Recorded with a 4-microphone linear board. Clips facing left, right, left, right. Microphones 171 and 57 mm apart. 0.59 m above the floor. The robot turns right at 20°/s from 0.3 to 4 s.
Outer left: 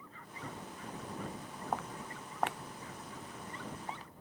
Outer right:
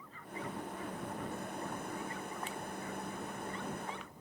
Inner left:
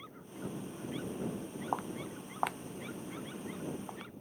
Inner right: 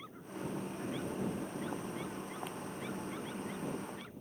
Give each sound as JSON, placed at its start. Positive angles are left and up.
{"t": 1.7, "sound": "footsteps", "side_deg": 80}